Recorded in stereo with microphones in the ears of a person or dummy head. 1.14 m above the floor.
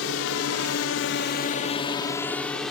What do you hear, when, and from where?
0.0 s a drone: 75° left (ahead or behind); by 2.7 s centre (ahead or behind)